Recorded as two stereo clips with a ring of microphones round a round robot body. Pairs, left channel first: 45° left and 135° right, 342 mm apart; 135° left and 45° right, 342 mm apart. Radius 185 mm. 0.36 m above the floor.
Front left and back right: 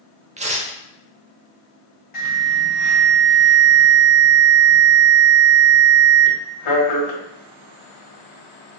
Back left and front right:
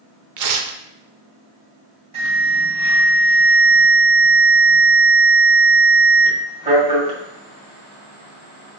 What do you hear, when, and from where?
0.4 s tearing paper: 65° right, 0.7 m
2.1 s an alarm: 25° left, 2 m